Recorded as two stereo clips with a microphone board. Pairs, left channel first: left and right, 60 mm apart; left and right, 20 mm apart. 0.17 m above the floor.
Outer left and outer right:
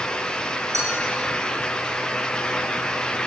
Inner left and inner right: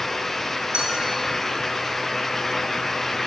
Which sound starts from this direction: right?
A clink, at 0.7 s.